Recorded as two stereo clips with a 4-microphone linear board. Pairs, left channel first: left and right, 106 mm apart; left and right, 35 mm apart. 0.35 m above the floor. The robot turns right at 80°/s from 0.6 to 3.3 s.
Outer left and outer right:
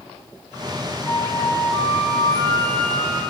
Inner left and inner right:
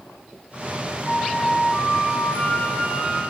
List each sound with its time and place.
1.1 s a flute: 30° left, 5 m; by 3.2 s 155° right, 5 m